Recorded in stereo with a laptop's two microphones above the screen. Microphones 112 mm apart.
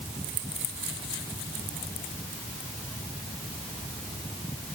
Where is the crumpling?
I don't hear crumpling.